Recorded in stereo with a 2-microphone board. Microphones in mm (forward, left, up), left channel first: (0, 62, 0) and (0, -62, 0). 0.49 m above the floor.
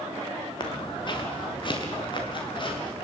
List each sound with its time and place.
0.6 s footsteps: 35° left (ahead or behind), 2 m; by 3.0 s 40° left (ahead or behind), 5.5 m